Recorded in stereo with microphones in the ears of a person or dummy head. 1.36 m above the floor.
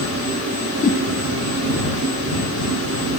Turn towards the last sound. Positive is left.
turn(degrees=40)  # may be behind; listen again after turning